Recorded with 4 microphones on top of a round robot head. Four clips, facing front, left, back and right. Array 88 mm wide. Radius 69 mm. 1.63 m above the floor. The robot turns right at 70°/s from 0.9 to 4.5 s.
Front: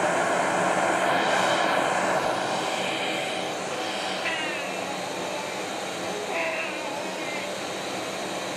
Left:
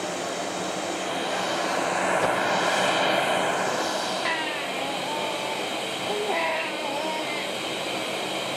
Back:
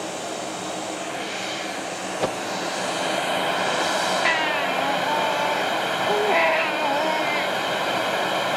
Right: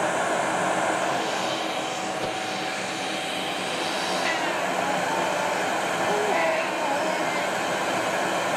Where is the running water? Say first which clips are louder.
Right 6 dB, front 7 dB; 40° right, 1.8 m; by 8.6 s 145° right, 1.8 m.